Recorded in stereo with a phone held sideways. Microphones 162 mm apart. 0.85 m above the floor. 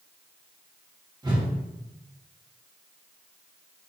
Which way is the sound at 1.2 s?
25° right (ahead or behind).